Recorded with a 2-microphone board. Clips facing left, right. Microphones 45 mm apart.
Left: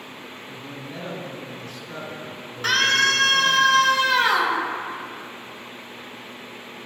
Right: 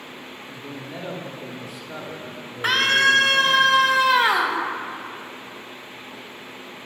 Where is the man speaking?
15° right (ahead or behind), 0.8 m.